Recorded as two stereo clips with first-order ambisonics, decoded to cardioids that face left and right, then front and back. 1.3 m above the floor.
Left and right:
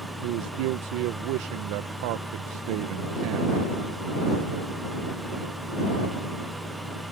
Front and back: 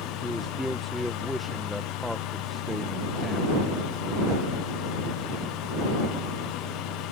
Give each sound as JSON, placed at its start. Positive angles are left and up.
{"t": 0.2, "sound": "a man speaking", "azimuth_deg": -90}